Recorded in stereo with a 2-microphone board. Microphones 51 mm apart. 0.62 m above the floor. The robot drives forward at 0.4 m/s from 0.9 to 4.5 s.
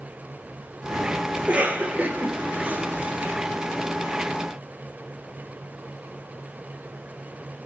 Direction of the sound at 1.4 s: 30° right (ahead or behind).